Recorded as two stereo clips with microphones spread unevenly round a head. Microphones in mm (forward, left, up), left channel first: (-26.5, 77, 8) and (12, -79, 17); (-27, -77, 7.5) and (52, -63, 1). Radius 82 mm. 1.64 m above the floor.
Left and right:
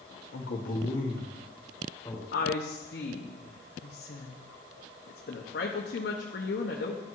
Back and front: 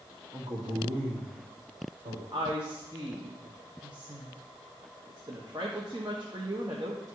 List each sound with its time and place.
0.3 s a man speaking: 85° left, 0.9 m; by 2.2 s 35° left, 3 m
2.3 s a woman speaking: 75° left, 0.9 m